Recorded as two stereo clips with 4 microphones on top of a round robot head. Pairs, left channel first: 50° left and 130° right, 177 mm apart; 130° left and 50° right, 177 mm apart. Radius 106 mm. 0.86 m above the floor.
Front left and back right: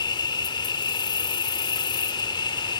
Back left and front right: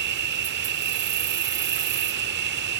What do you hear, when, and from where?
0.0 s an insect: 20° right